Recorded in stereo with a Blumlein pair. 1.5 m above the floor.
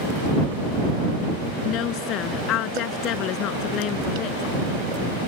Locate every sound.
1.6 s a woman speaking: 35° left